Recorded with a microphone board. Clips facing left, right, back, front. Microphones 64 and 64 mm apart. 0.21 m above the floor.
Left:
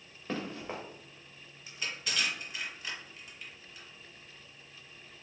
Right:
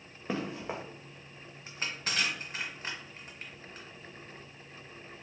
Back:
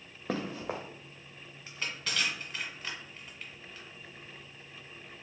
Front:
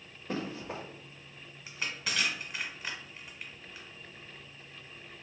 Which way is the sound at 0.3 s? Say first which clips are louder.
Right 2 dB, back 2 dB; 165° right.